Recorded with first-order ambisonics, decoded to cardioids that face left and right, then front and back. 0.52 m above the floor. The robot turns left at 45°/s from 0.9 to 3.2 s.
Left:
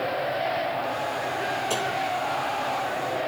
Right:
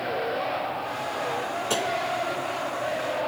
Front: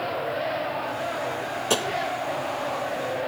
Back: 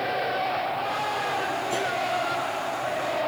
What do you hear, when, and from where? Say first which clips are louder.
1.7 s tapping: right 4 dB, front 6 dB; 10° right, 1.0 m; by 1.9 s 20° right, 1.0 m